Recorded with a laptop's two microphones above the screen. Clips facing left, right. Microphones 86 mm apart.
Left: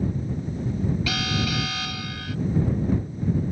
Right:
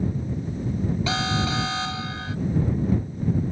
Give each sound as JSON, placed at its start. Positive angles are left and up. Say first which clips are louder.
{"t": 1.1, "sound": "an alarm", "louder": "right 2 dB", "side_deg": -30}